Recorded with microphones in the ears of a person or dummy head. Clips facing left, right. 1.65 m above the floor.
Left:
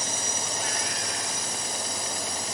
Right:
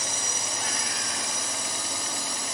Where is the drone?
65° right (ahead or behind); by 2.5 s 60° right (ahead or behind).